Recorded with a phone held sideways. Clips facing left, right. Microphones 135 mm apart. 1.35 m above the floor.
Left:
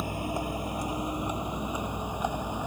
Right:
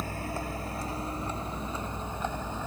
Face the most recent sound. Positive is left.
turn(degrees=15)  # may be behind; listen again after turning